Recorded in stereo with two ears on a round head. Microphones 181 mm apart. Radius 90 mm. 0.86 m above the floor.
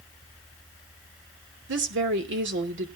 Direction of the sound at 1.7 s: 60° right (ahead or behind).